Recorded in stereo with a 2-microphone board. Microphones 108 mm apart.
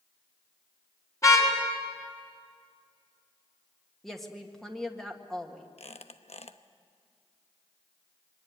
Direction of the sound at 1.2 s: 30° left (ahead or behind).